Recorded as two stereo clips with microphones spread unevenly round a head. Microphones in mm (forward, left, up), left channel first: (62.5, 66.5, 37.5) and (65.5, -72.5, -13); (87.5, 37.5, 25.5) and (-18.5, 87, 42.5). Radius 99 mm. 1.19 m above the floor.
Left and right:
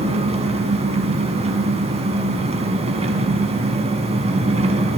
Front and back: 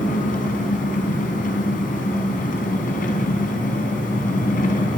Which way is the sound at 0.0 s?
40° right.